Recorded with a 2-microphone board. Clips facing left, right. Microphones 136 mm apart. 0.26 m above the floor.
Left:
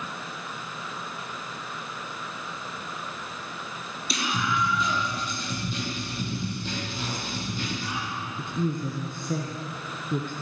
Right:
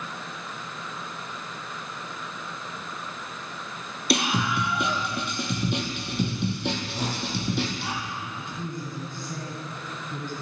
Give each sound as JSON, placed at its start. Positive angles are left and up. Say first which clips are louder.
{"t": 4.1, "sound": "a scream", "louder": "right 4 dB", "side_deg": -70, "distance_m": 6.0}
{"t": 6.9, "sound": "a whoosh", "louder": "right 3 dB", "side_deg": -40, "distance_m": 6.5}
{"t": 8.4, "sound": "a woman speaking", "louder": "left 6 dB", "side_deg": 60, "distance_m": 4.0}